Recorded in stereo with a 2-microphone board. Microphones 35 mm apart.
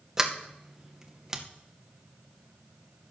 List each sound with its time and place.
0.2 s a sliding door: 15° right (ahead or behind), 0.9 m